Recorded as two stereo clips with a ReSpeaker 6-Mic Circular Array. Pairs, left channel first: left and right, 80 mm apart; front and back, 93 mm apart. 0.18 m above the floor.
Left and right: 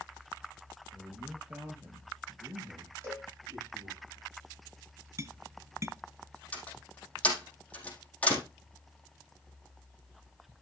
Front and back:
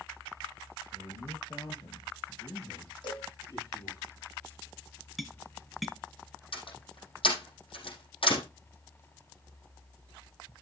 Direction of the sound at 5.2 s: 90° right.